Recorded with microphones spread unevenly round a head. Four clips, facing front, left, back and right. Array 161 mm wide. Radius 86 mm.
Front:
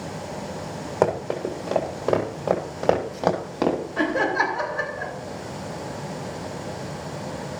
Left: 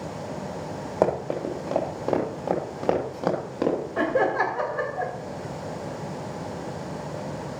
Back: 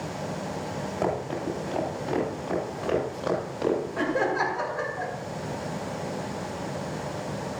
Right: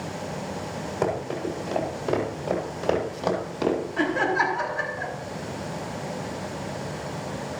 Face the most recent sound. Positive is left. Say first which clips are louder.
# left 3 dB, front 3 dB
turn(degrees=85)